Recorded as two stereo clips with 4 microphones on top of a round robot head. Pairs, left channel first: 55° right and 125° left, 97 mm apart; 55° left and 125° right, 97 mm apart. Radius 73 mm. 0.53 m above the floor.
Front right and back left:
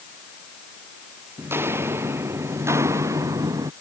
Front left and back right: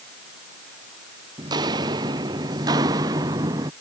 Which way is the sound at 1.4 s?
170° right.